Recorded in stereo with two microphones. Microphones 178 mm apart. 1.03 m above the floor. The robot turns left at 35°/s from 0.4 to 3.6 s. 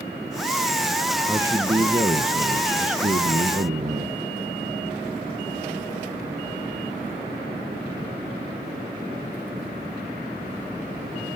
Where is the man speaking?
20° right, 1.1 m; by 4.1 s 100° right, 1.1 m.